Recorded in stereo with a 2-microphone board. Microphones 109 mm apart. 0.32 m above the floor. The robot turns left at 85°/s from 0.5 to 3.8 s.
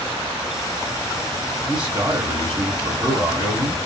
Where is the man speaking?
5° left, 2 m; by 3.8 s 175° right, 2 m.